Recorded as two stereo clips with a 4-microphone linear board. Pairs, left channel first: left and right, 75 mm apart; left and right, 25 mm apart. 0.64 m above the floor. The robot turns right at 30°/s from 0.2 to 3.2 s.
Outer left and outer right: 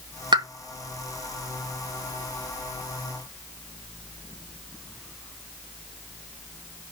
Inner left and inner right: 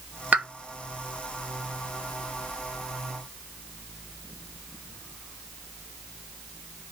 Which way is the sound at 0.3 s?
70° right (ahead or behind).